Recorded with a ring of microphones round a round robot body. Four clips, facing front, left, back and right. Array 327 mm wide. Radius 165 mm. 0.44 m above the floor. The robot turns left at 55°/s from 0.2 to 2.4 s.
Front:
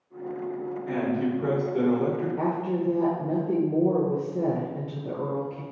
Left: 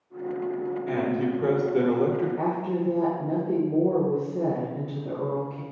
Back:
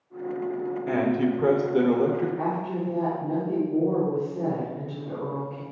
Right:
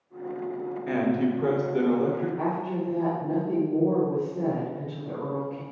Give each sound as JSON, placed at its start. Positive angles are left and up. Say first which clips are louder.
{"t": 0.9, "sound": "a man speaking", "louder": "right 3 dB, back 3 dB", "azimuth_deg": -160, "distance_m": 1.2}
{"t": 2.4, "sound": "a woman speaking", "louder": "left 2 dB, front 1 dB", "azimuth_deg": 40, "distance_m": 1.4}